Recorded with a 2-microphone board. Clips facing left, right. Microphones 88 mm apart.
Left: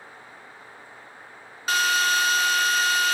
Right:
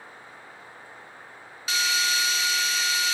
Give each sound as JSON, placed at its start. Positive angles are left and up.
{"t": 1.7, "sound": "a drill", "side_deg": 50, "distance_m": 0.5}